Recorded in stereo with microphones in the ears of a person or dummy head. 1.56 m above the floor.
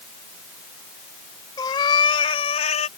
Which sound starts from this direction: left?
A cat meowing, at 1.6 s.